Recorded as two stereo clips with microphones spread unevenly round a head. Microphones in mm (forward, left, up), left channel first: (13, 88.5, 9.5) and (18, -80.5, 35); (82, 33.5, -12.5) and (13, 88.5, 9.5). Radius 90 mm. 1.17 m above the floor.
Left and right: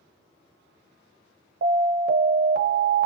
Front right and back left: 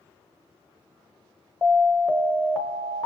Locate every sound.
1.6 s an alarm: 135° right, 0.8 m